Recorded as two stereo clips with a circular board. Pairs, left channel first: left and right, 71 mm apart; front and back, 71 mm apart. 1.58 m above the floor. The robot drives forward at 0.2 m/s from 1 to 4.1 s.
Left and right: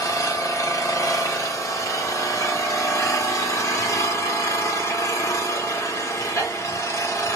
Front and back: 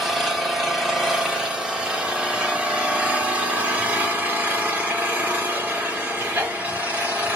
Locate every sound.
0.0 s an engine running: 95° left, 1.7 m; by 7.4 s 120° left, 1.9 m